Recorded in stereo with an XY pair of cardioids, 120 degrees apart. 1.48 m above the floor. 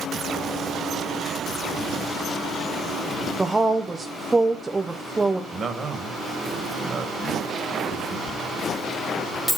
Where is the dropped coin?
5° left, 2.5 m.